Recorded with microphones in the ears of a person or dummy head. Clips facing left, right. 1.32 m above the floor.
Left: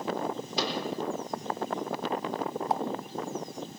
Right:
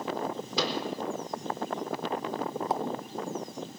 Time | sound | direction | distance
0.6 | a microwave | 75° right (ahead or behind) | 4 m
2.7 | a pop | 85° right | 0.9 m